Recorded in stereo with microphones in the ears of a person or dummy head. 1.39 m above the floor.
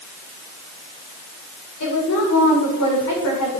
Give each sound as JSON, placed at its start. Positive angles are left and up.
{"t": 1.8, "sound": "a woman speaking", "side_deg": 85, "distance_m": 6.0}